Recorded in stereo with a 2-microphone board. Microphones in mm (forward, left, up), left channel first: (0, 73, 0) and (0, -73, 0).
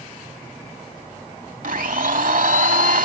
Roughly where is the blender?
Right.